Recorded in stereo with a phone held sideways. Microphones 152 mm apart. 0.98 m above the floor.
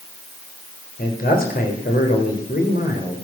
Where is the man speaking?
80° left, 3.5 m.